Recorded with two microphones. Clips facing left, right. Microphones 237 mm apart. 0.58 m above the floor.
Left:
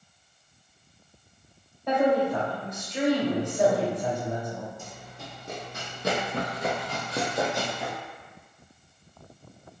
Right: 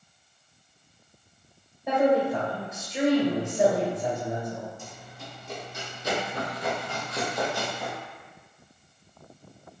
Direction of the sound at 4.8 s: 65° left (ahead or behind).